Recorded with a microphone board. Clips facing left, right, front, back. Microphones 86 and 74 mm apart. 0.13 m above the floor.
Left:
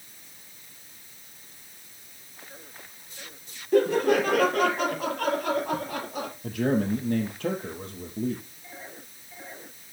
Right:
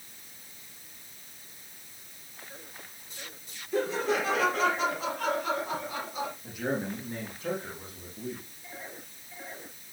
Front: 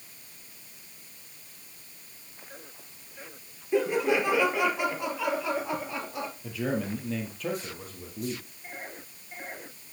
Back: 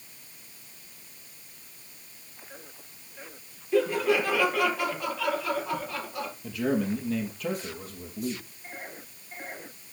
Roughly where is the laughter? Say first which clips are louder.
Left 7 dB, back 1 dB; left.